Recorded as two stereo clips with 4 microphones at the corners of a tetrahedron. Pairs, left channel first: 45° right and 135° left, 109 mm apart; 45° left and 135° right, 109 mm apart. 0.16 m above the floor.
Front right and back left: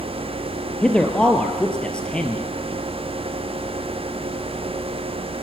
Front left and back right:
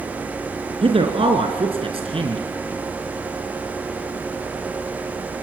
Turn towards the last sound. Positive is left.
turn(degrees=-125)